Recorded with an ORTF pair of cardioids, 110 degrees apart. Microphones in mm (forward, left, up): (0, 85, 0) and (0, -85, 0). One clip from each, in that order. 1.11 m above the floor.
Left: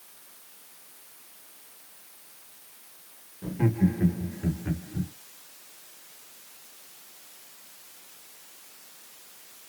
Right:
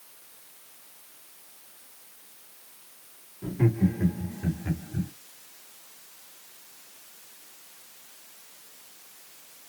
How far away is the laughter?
About 1.9 m.